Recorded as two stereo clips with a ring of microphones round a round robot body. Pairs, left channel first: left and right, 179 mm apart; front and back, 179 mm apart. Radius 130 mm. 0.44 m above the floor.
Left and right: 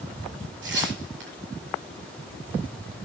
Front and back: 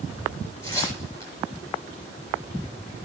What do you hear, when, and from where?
0.6 s tearing paper: 80° right, 9 m